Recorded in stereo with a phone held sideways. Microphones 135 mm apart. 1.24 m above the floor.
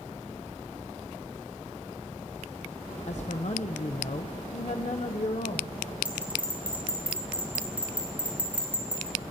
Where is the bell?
10° right (ahead or behind), 6 m.